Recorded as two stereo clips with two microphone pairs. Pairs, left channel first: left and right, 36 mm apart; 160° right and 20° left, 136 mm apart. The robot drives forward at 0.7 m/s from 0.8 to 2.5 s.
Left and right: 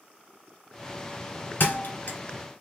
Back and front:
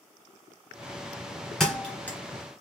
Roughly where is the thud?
Behind left.